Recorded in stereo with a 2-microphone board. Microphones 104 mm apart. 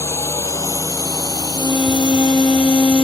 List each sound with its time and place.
0.0 s a drone: 25° left (ahead or behind); by 3.0 s 55° left (ahead or behind)
1.6 s a violin: 5° right (ahead or behind)